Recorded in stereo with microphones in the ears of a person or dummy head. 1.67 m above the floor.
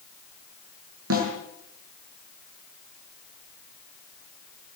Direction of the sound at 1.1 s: 70° right (ahead or behind).